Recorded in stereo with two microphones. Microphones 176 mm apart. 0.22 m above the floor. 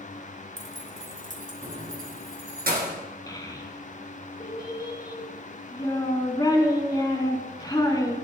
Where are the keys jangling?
40° right (ahead or behind), 1.0 m; by 3.0 s 60° right (ahead or behind), 2 m.